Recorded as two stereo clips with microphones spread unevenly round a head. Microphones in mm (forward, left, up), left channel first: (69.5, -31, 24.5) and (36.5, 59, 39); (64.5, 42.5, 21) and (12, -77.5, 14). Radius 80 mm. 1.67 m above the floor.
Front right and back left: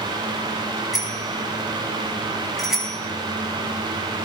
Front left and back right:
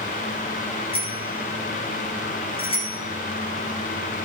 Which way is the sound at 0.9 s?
20° left.